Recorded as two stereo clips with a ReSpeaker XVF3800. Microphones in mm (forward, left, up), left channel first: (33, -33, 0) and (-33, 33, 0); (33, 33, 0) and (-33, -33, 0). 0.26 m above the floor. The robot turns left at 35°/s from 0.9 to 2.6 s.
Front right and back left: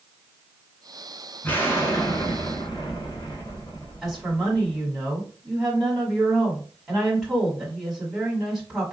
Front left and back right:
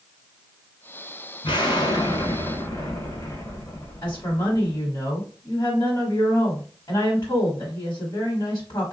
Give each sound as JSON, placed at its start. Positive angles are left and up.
{"t": 1.4, "sound": "an explosion", "azimuth_deg": 25, "distance_m": 0.9}
{"t": 4.0, "sound": "a woman speaking", "azimuth_deg": 45, "distance_m": 1.4}